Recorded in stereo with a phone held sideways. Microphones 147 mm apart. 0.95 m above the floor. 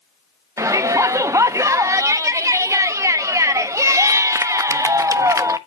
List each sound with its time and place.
0.6 s a shout: 20° right (ahead or behind), 0.7 m